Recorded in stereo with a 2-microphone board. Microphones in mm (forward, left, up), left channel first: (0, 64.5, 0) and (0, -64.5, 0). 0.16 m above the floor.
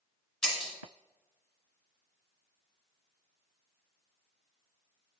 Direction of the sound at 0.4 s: 5° left (ahead or behind).